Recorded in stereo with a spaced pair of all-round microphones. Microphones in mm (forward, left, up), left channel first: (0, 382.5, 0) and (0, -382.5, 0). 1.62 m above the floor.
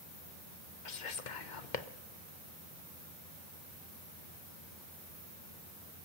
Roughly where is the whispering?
Left.